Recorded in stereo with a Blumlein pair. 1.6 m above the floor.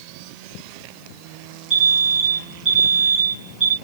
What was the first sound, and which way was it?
An alarm, 10° right.